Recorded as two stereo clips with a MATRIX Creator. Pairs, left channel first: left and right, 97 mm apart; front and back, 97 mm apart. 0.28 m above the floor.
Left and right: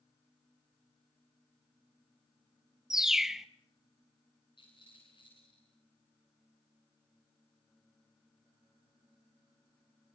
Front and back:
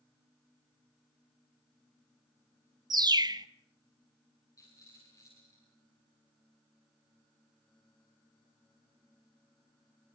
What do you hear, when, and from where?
2.9 s a bird: 175° right, 0.6 m
4.6 s a rattle: 55° left, 9 m